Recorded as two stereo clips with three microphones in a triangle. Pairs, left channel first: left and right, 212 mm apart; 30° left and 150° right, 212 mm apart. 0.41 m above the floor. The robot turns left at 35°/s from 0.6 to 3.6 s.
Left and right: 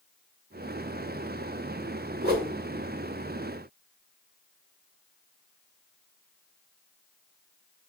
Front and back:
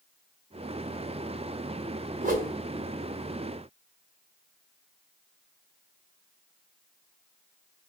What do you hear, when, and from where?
2.2 s a whoosh: 110° right, 0.6 m; by 2.5 s 120° right, 0.6 m